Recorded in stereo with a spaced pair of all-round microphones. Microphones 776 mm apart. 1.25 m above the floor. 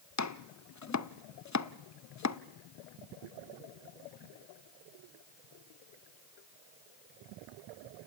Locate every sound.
0.2 s chopping: 25° left (ahead or behind), 0.5 m